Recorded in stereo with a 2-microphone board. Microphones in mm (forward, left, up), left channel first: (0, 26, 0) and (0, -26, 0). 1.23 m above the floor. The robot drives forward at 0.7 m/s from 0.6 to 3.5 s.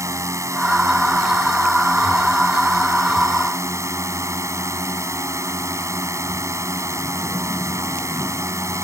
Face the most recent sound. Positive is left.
turn(degrees=-75)  # may be behind; listen again after turning